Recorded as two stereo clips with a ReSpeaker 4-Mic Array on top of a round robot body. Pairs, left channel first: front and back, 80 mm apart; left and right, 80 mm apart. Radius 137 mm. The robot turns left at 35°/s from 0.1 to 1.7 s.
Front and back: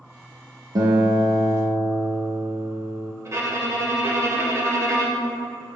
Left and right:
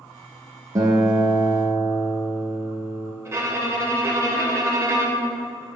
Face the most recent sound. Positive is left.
turn(degrees=-140)